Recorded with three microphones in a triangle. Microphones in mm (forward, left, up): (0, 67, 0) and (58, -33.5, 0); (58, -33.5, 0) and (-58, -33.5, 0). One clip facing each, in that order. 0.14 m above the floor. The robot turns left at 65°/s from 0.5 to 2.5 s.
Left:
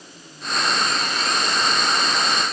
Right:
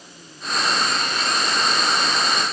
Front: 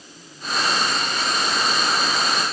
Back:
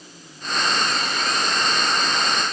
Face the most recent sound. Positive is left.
No sound to turn to.